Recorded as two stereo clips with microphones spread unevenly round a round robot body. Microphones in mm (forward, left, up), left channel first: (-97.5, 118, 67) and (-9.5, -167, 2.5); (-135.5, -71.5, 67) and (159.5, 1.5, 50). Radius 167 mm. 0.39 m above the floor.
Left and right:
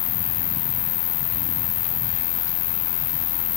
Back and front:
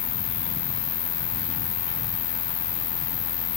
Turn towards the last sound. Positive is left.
turn(degrees=140)